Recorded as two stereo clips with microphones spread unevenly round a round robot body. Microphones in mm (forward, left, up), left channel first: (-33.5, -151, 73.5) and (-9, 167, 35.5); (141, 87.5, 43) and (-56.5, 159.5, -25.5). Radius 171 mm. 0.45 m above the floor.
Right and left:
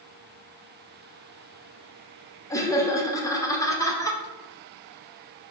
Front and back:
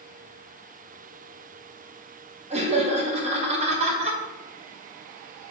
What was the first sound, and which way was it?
Laughter, straight behind.